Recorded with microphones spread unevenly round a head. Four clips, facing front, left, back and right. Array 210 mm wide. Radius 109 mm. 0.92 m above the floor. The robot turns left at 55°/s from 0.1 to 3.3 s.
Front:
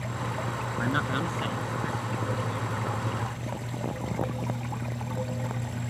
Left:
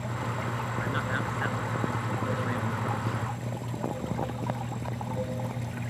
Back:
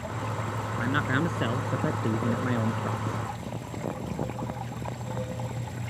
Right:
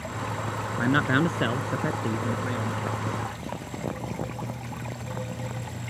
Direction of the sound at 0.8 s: 80° right.